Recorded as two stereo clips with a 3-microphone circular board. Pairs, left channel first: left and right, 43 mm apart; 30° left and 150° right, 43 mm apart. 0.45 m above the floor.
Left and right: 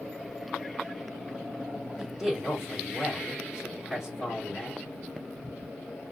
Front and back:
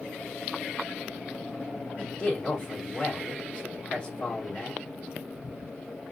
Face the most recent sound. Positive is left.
turn(degrees=-25)